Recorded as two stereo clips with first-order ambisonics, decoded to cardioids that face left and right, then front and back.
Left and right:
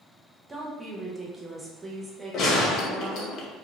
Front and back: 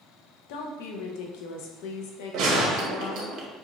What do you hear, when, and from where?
0.5 s a woman speaking: 10° right, 0.6 m
2.3 s a gunshot: 140° left, 0.6 m